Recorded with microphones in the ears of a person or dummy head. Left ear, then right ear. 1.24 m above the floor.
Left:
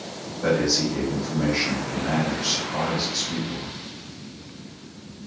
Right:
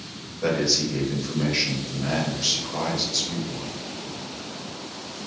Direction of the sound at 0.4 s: 25° right (ahead or behind).